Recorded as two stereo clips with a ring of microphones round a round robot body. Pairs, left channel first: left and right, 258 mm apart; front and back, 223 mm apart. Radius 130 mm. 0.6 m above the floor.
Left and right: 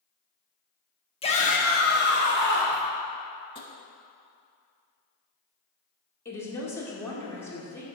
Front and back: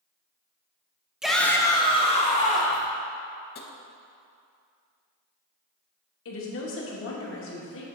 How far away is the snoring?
No snoring in this recording.